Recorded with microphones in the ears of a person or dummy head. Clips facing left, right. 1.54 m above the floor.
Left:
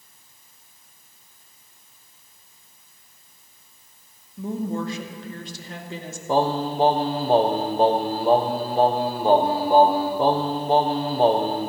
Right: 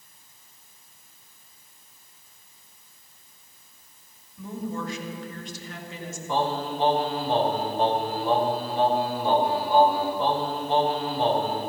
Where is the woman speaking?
30° left (ahead or behind), 2.5 m.